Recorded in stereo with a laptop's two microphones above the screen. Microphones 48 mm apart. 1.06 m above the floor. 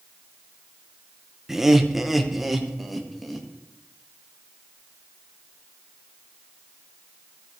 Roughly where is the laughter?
Centre.